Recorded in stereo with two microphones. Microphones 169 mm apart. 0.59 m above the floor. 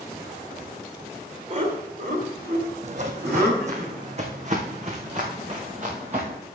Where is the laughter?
45° right (ahead or behind), 2 m; by 3.8 s 75° right (ahead or behind), 4 m.